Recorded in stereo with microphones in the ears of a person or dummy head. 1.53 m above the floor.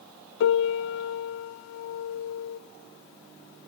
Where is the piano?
65° left (ahead or behind), 0.5 m.